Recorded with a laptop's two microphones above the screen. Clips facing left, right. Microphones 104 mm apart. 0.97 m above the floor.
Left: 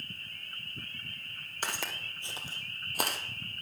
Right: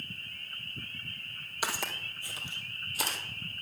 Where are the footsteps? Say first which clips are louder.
Right 2 dB; 10° right (ahead or behind), 1.4 m; by 3.2 s 60° left (ahead or behind), 1.8 m.